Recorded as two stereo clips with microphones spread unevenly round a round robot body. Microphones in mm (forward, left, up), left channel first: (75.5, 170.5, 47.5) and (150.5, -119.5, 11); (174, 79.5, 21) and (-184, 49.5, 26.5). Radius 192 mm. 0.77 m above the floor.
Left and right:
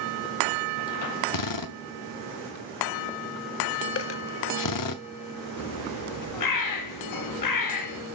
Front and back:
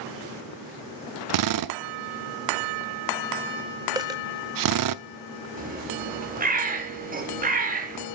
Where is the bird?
120° left, 1.8 m.